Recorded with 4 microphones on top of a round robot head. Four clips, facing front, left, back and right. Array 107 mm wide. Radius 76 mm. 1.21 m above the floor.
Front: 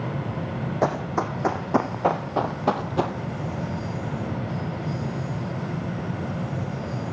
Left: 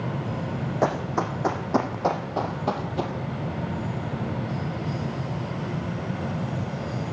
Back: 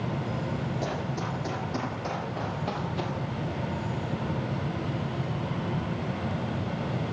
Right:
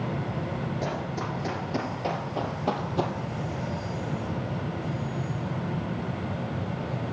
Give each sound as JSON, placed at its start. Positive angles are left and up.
{"t": 0.8, "sound": "running footsteps", "azimuth_deg": 45, "distance_m": 2.5}